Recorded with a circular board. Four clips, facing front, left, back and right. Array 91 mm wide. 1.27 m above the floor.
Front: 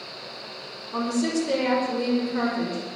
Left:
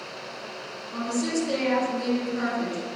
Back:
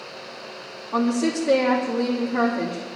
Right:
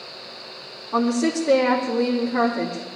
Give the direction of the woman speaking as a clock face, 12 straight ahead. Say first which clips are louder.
Right 7 dB, back 3 dB; 4 o'clock.